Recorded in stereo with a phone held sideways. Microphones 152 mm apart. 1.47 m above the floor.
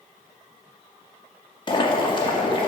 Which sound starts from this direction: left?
Boiling, at 1.7 s.